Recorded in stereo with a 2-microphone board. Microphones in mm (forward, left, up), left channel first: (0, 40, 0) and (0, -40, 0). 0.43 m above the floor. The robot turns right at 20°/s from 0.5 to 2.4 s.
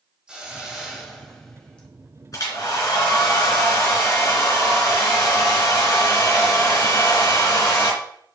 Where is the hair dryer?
45° left (ahead or behind), 3 m.